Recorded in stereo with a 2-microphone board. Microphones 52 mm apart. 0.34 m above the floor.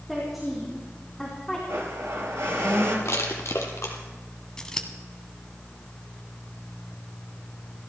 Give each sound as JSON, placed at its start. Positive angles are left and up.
{"t": 0.1, "sound": "a woman speaking", "side_deg": -5, "distance_m": 4.0}
{"t": 1.7, "sound": "a blender", "side_deg": -75, "distance_m": 4.0}
{"t": 3.0, "sound": "crushing", "side_deg": 65, "distance_m": 2.0}
{"t": 4.6, "sound": "scissors", "side_deg": 10, "distance_m": 1.4}